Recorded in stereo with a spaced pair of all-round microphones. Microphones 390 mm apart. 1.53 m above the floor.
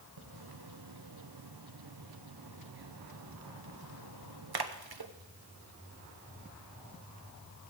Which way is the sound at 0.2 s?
70° right (ahead or behind).